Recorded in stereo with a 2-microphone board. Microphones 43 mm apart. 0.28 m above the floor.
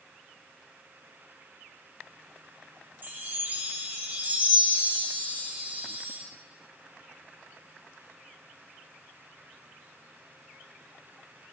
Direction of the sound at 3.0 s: 45° right (ahead or behind).